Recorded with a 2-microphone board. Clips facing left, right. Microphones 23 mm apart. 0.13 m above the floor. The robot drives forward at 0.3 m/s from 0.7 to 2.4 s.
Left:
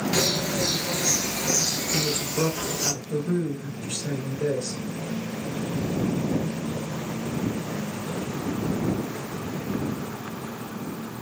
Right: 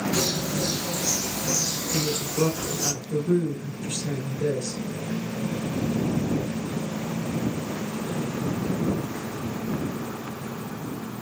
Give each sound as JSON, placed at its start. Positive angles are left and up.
{"t": 0.1, "sound": "a bird", "side_deg": 60, "distance_m": 0.6}
{"t": 1.9, "sound": "a woman speaking", "side_deg": 20, "distance_m": 1.2}